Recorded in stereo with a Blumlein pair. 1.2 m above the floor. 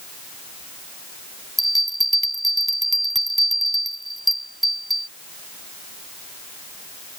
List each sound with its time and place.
1.6 s a bell: 5° right